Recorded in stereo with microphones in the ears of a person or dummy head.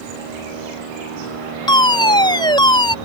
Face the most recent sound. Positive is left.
turn(degrees=20)  # may be behind; listen again after turning